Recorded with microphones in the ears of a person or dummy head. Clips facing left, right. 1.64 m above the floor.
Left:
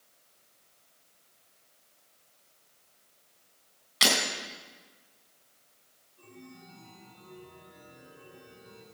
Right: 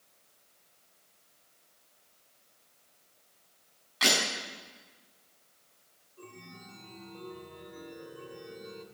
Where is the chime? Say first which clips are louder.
Even; 50° right (ahead or behind), 2.5 m.